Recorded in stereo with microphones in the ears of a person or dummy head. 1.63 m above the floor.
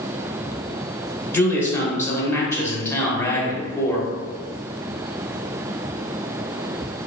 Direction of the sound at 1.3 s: 15° left (ahead or behind).